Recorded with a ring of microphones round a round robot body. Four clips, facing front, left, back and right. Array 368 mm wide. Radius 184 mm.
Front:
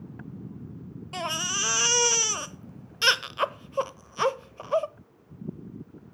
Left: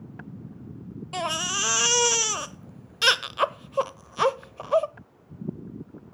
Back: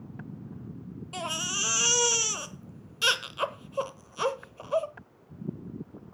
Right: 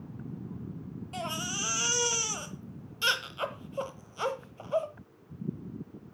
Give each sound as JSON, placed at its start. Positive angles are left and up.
{"t": 1.1, "sound": "a baby crying", "azimuth_deg": 70, "distance_m": 0.8}